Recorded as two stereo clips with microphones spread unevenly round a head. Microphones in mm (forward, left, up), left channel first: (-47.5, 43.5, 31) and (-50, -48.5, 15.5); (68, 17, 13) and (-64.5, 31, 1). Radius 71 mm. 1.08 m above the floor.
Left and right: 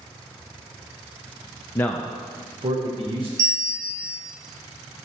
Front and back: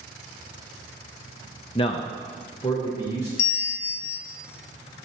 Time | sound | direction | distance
1.8 | a man speaking | 30° left | 0.5 m
3.4 | a bell | 45° right | 0.7 m